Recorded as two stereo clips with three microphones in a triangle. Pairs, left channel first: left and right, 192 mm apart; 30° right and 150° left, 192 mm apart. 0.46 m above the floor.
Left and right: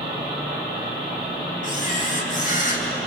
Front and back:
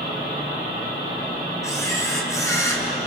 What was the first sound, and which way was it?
A camera shutter, 45° left.